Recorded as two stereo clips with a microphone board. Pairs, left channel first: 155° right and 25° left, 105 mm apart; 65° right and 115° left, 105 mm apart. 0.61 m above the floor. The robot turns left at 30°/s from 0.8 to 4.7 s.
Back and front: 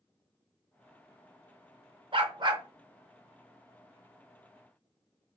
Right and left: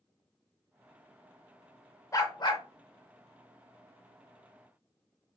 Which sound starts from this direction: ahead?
A dog barking, at 2.1 s.